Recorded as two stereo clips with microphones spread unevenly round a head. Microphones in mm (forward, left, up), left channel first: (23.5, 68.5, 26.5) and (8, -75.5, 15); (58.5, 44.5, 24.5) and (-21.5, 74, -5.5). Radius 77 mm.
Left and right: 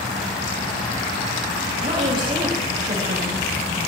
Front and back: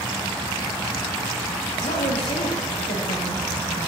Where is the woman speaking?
40° right, 8.5 m.